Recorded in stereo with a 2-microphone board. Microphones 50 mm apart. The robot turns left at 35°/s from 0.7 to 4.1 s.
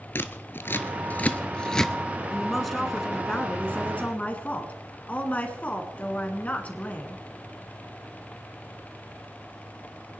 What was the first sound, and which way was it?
Scissors, 50° left (ahead or behind).